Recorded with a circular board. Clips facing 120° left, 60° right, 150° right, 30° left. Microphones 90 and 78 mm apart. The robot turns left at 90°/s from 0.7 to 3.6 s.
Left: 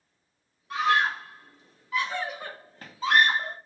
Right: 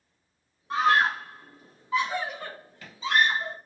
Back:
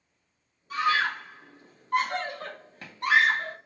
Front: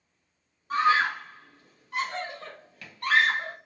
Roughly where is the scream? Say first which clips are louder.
Right 2 dB, front 3 dB; ahead.